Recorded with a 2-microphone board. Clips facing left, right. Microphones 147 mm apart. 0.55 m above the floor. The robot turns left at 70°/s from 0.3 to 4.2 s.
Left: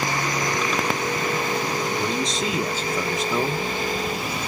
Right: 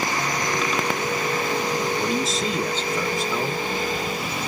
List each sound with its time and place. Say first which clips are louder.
2.0 s a man speaking: right 1 dB; 10° right (ahead or behind), 0.7 m; by 3.7 s 25° left (ahead or behind), 0.7 m